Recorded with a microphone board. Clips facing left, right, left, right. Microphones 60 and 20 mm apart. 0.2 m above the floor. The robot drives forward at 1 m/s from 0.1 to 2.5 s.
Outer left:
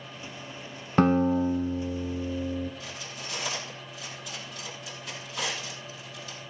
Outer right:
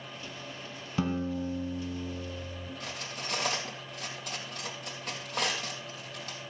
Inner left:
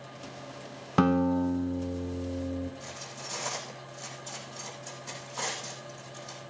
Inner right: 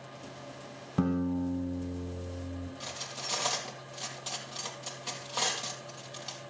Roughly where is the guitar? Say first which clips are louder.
Outer left 10 dB, inner left 6 dB; left.